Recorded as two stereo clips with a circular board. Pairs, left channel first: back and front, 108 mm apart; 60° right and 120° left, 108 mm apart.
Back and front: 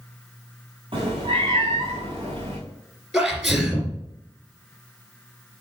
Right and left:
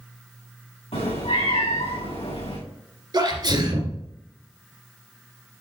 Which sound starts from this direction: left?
A sneeze, at 3.1 s.